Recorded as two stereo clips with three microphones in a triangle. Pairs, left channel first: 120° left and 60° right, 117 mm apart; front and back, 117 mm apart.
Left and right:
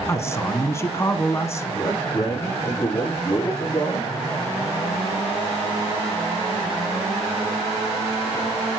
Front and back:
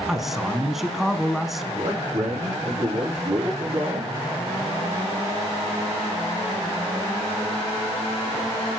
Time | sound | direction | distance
0.1 | a man speaking | 95° left | 1.1 m
1.8 | a man speaking | 175° right | 5 m